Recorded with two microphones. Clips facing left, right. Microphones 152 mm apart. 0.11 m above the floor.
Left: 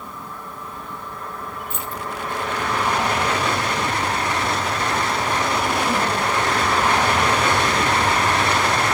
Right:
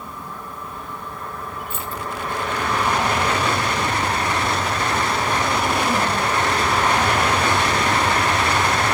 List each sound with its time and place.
1.7 s keys jangling: 5° right (ahead or behind), 0.7 m